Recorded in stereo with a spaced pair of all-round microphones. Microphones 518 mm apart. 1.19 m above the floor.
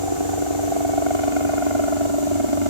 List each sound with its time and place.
0.0 s a helicopter: 65° right (ahead or behind)